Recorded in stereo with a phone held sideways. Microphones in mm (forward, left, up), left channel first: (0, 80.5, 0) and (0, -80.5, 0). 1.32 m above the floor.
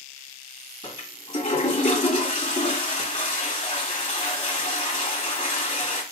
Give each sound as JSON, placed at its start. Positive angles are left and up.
{"t": 0.8, "sound": "a toilet flushing", "side_deg": 45, "distance_m": 1.6}